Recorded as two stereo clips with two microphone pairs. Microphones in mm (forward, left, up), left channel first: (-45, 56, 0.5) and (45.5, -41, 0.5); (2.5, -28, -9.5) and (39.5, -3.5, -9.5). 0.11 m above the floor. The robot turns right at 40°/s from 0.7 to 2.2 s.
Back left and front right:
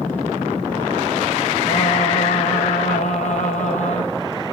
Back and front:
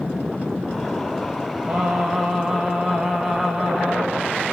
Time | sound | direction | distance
1.7 | singing | 90° left | 3 m